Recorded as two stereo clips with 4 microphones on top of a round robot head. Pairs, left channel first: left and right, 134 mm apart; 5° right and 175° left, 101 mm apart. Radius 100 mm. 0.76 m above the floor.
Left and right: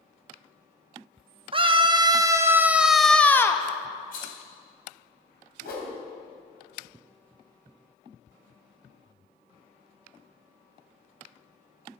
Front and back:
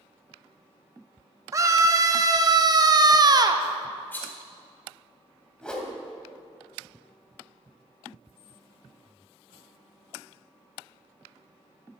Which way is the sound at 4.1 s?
65° left.